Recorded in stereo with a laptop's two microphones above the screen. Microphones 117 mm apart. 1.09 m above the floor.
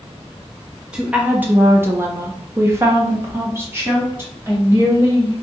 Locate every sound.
0.9 s a woman speaking: 10° right (ahead or behind), 0.6 m; by 5.3 s 20° right (ahead or behind), 2 m